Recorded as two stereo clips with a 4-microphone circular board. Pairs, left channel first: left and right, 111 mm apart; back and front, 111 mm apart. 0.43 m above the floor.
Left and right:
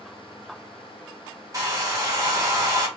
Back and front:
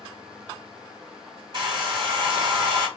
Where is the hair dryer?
35° right, 2.0 m.